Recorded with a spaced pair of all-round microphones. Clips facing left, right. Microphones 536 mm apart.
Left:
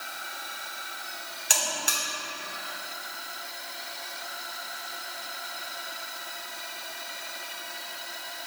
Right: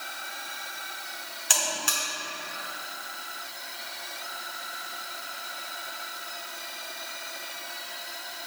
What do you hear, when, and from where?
1.5 s a buzzer: 25° right (ahead or behind), 2.5 m